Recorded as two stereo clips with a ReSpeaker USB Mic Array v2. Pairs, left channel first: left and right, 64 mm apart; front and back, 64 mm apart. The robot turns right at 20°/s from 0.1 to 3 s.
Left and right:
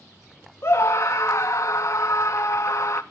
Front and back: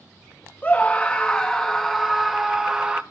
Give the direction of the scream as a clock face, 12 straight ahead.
10 o'clock.